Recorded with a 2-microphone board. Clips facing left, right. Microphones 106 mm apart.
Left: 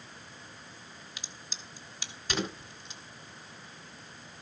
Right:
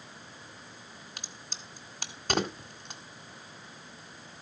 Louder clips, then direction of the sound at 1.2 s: Right 1 dB; 55° right (ahead or behind).